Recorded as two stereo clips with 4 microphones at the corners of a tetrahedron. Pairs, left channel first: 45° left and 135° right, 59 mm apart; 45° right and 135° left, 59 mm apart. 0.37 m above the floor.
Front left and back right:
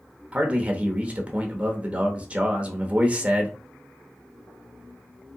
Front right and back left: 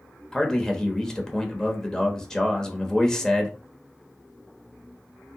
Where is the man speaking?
105° right, 0.9 m.